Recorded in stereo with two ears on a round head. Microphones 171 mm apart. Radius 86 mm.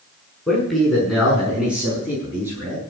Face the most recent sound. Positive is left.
turn(degrees=-15)  # may be behind; listen again after turning